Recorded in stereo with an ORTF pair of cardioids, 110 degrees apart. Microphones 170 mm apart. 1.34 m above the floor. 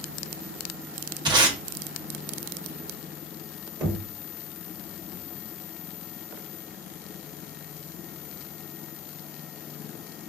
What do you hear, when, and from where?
1.2 s tape being pulled: 25° right, 1.1 m
3.8 s knocking: 25° right, 1.3 m